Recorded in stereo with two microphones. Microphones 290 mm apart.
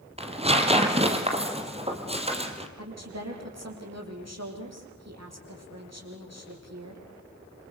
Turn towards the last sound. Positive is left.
turn(degrees=-60)  # may be behind; listen again after turning